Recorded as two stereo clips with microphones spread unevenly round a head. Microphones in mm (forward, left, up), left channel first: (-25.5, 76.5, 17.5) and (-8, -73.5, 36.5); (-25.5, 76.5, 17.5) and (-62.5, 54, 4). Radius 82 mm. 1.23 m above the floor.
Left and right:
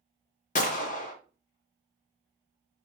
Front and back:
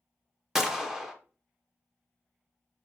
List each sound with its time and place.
0.6 s a gunshot: 135° left, 0.8 m